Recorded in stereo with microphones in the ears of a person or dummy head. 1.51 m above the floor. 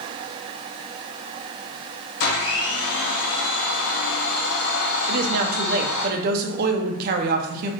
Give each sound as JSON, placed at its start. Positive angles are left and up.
{"t": 2.2, "sound": "a blender", "side_deg": 70, "distance_m": 1.0}
{"t": 5.1, "sound": "a woman speaking", "side_deg": -50, "distance_m": 0.6}